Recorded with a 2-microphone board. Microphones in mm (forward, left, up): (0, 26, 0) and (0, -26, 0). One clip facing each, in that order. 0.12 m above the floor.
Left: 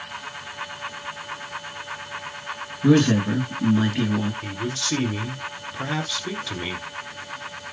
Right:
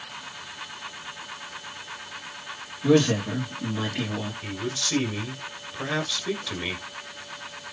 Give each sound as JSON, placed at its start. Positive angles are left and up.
{"t": 2.8, "sound": "a man speaking", "side_deg": 30, "distance_m": 2.0}
{"t": 4.4, "sound": "a man speaking", "side_deg": 0, "distance_m": 1.5}